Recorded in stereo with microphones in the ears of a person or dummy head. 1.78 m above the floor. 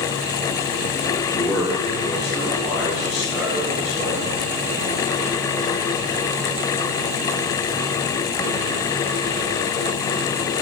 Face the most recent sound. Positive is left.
turn(degrees=15)  # may be behind; listen again after turning